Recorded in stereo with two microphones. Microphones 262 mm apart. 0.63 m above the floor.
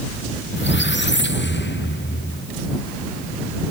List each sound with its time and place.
0.6 s a squeak: 45° left (ahead or behind)